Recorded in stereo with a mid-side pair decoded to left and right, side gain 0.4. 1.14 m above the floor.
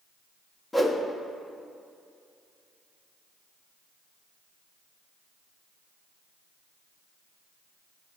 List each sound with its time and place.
0.7 s a whoosh: 20° left, 1.2 m